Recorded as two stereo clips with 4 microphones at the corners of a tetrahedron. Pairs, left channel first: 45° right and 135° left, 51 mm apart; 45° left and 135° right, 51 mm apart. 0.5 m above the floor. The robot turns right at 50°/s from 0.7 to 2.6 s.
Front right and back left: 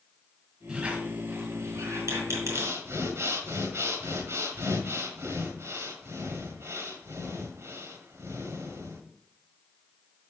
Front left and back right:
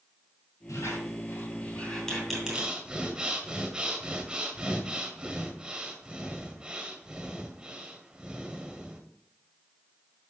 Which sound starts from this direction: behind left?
Breathing, at 2.5 s.